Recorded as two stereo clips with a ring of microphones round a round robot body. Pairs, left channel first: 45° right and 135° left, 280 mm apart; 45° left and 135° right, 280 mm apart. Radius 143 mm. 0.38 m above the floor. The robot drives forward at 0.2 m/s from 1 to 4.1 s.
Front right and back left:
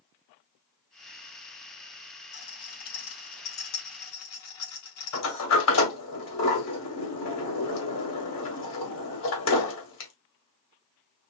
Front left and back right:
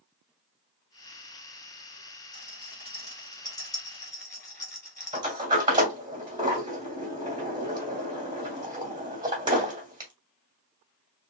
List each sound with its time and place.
2.3 s a rattle: 30° right, 4 m; by 5.3 s 35° right, 3.5 m
5.1 s a sliding door: 65° right, 2 m